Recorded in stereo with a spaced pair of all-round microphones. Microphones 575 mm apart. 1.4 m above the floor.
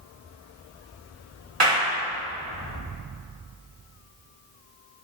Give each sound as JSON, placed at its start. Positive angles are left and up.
{"t": 1.6, "sound": "a clap", "side_deg": -90, "distance_m": 4.0}